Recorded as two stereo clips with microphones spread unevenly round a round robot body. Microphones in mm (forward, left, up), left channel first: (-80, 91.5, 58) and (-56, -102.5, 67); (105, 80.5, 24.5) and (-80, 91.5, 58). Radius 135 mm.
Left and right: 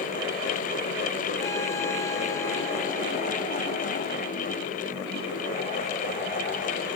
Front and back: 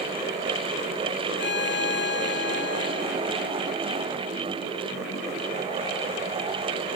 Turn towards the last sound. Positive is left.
turn(degrees=20)